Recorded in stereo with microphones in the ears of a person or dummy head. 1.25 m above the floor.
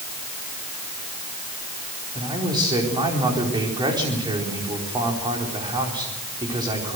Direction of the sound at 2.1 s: 25° right (ahead or behind).